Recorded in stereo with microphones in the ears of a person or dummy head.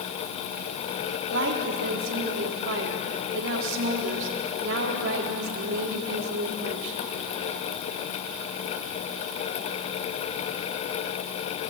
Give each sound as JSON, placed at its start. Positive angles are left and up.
{"t": 1.3, "sound": "a woman speaking", "side_deg": -70, "distance_m": 3.5}